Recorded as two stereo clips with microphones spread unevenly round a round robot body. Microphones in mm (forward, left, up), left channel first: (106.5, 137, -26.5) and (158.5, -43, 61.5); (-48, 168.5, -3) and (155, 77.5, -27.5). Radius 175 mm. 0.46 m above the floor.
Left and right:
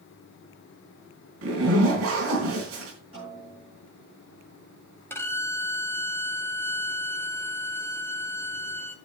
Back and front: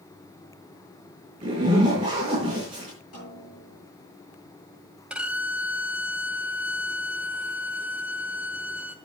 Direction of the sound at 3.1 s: 150° right.